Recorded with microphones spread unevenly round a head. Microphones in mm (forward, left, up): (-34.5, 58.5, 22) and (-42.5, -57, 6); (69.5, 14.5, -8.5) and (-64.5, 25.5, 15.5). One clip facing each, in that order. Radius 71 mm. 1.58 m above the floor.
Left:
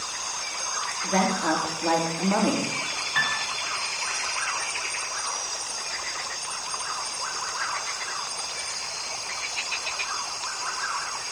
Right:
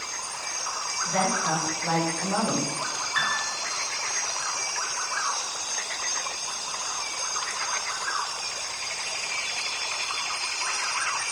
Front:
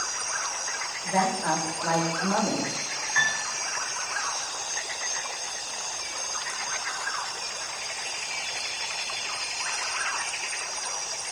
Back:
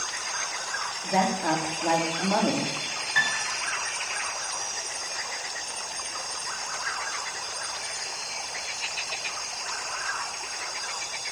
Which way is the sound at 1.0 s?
115° left.